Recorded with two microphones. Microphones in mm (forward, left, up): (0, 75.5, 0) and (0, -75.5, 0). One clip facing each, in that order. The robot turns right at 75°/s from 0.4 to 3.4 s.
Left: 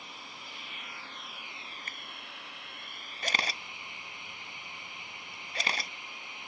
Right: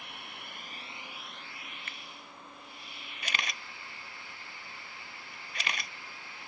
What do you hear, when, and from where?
0.0 s running water: 65° right; by 6.5 s 160° left
1.9 s a finger snap: 40° left (ahead or behind); by 2.0 s 30° left (ahead or behind)
3.2 s a camera shutter: 45° left (ahead or behind); by 5.9 s 35° left (ahead or behind)